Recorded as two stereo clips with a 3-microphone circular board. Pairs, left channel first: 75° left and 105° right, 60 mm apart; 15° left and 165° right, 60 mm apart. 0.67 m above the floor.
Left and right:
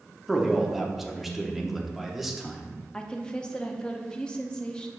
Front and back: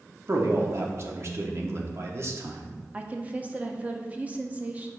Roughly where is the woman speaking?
Behind left.